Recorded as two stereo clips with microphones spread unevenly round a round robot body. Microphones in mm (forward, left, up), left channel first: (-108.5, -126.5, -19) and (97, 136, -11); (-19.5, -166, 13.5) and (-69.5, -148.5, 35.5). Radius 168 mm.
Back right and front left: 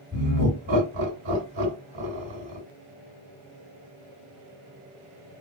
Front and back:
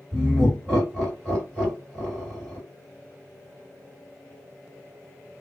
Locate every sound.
0.1 s laughter: 65° left, 1.9 m